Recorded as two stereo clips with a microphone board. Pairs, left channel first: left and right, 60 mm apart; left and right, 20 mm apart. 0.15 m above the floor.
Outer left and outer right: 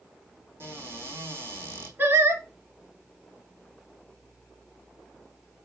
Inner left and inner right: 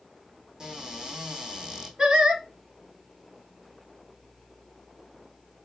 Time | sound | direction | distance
0.6 | a cupboard door | 35° right (ahead or behind) | 2.5 m
2.0 | singing | 35° right (ahead or behind) | 2 m